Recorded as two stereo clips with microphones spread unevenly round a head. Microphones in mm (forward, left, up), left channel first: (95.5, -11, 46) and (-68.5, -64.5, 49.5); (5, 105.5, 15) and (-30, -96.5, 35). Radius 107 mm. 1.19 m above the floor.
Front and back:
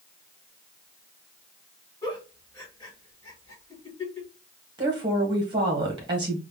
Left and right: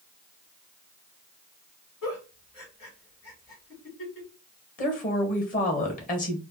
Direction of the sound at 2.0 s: 90° left.